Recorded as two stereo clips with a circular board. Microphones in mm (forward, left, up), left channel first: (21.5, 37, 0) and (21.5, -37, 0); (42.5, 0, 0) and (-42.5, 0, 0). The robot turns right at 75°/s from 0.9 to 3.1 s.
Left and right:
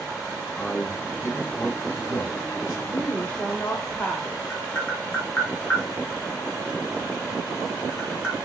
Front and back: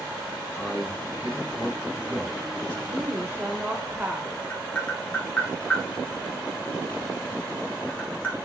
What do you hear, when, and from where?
0.6 s a man speaking: 5° left, 2.5 m; by 2.8 s 145° left, 2.5 m
2.9 s a woman speaking: 120° left, 0.9 m; by 4.3 s 140° left, 0.9 m
4.5 s tapping: 55° left, 1.3 m